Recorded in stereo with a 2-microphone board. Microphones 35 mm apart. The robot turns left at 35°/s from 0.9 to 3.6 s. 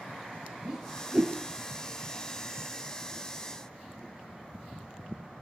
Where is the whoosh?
15° right (ahead or behind), 2.5 m; by 1.4 s 25° right (ahead or behind), 2.5 m.